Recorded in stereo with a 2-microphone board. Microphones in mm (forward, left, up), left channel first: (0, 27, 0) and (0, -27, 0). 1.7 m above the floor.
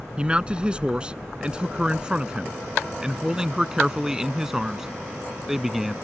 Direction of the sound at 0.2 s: 20° right (ahead or behind).